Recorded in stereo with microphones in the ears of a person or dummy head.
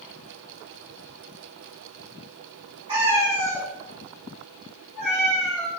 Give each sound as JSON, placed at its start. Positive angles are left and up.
{"t": 2.9, "sound": "a cat meowing", "side_deg": -25, "distance_m": 0.8}